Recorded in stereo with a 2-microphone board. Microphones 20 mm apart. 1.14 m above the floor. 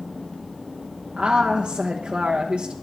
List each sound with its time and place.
1.2 s a woman speaking: 70° right (ahead or behind), 1.0 m